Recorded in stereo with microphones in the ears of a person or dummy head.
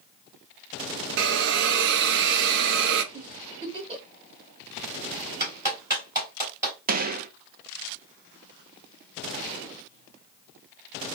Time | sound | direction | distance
1.2 | a hiss | 65° right (ahead or behind) | 0.6 m
3.1 | a giggle | 30° right (ahead or behind) | 2.5 m
5.4 | a clap | 15° right (ahead or behind) | 3 m
6.9 | a gunshot | 45° right (ahead or behind) | 0.5 m